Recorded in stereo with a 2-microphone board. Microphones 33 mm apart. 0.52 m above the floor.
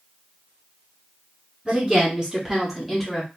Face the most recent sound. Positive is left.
turn(degrees=0)  # may be behind; listen again after turning